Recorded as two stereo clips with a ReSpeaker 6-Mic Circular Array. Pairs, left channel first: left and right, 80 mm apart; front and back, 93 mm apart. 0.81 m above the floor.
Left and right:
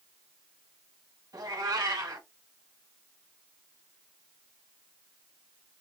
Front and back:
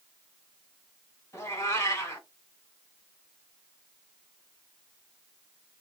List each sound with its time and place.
1.3 s a cat meowing: 60° right, 1.6 m